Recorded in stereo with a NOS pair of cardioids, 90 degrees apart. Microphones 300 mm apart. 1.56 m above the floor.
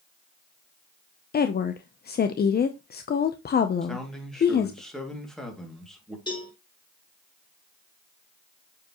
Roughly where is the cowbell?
Ahead.